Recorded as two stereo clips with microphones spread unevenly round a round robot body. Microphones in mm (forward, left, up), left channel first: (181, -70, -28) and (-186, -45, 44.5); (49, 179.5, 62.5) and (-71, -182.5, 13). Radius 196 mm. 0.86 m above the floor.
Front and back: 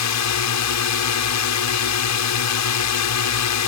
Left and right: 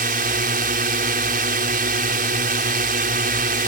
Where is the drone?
40° right.